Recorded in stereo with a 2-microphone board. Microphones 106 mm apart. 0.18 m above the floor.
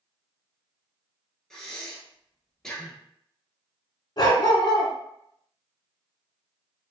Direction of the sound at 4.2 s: 45° left (ahead or behind).